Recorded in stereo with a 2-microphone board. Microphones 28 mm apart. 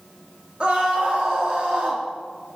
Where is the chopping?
No chopping in this recording.